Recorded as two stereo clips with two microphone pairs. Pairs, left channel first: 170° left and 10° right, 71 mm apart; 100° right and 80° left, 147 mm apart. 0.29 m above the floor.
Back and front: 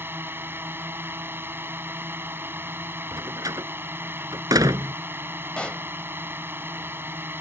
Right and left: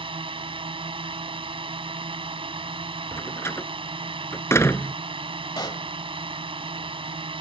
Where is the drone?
40° left.